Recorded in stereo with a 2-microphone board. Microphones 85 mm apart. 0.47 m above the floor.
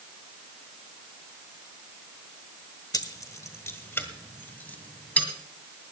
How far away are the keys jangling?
About 1.0 m.